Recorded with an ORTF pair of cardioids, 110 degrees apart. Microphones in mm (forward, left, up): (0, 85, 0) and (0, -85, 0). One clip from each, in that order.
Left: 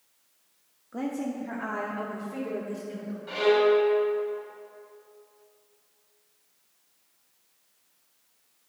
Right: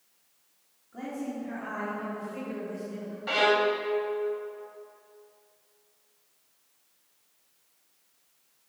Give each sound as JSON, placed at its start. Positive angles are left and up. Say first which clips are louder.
{"t": 0.9, "sound": "a woman speaking", "louder": "left 4 dB", "azimuth_deg": 60, "distance_m": 1.4}
{"t": 3.3, "sound": "a violin", "louder": "left 2 dB", "azimuth_deg": -65, "distance_m": 1.4}